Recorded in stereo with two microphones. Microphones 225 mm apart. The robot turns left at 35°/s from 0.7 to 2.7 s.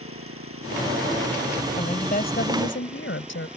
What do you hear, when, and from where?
0.0 s an engine running: 105° right; by 3.6 s 175° right
1.8 s a woman speaking: 155° left; by 3.5 s 120° left